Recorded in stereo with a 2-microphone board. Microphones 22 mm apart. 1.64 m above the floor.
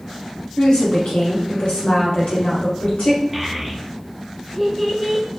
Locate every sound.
0.6 s a woman speaking: 90° left, 1.4 m
3.3 s a child speaking: 5° right (ahead or behind), 0.6 m